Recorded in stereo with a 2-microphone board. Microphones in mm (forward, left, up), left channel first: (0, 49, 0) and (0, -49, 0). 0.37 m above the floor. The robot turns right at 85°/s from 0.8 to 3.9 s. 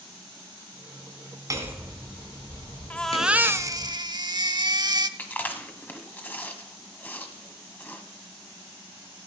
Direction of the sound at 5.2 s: 20° left (ahead or behind).